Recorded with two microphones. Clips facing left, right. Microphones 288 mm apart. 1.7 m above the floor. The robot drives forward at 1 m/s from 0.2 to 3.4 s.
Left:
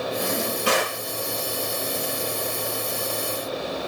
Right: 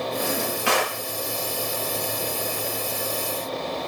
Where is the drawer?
45° left (ahead or behind), 6 m; by 1.0 s 50° left (ahead or behind), 5.5 m.